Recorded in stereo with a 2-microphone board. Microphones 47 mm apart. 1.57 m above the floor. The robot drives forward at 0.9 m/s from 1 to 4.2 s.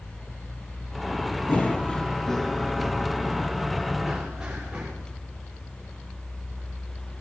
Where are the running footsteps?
40° left (ahead or behind), 2 m; by 4.9 s 15° right (ahead or behind), 7.5 m.